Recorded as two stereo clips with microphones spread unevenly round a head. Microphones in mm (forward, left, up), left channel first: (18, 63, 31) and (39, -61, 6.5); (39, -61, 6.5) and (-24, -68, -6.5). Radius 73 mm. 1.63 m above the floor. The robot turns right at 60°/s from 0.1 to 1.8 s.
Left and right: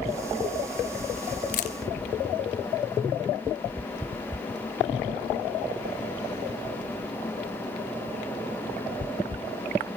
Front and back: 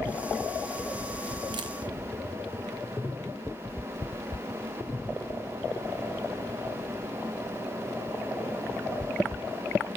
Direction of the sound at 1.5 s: 135° left.